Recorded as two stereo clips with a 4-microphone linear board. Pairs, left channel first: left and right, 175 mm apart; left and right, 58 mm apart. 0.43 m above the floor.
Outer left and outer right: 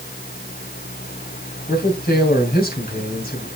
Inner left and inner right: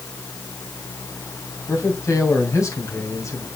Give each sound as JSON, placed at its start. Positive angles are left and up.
{"t": 1.7, "sound": "a man speaking", "side_deg": 60, "distance_m": 3.0}